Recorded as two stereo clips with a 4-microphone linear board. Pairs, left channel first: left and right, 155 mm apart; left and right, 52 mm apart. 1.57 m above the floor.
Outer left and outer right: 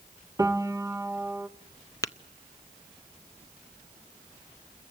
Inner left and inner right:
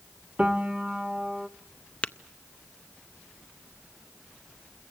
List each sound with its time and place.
0.4 s a piano: 25° right (ahead or behind), 0.9 m
2.0 s tapping: 20° left (ahead or behind), 0.6 m